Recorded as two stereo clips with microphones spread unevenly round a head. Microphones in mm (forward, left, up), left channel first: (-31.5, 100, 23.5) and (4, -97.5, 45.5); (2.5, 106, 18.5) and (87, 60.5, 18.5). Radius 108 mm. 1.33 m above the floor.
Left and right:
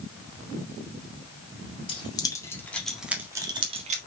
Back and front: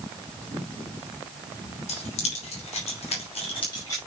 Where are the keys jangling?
165° left, 2 m; by 4.0 s 130° right, 1.6 m.